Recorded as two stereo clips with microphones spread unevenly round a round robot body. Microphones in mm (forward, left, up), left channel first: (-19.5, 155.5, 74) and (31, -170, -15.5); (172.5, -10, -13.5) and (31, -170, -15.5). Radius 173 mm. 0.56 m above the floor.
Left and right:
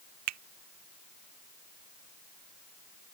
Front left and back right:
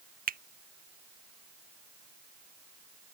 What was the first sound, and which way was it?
A finger snap, 85° right.